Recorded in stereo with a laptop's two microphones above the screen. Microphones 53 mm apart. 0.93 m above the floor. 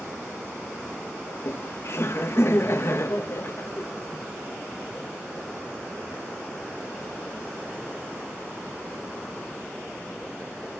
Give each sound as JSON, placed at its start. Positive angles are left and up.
{"t": 1.3, "sound": "laughter", "side_deg": 55, "distance_m": 0.6}